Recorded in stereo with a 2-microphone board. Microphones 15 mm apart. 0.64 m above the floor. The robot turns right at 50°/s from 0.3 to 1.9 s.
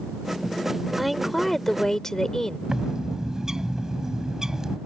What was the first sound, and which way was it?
A woman speaking, 10° right.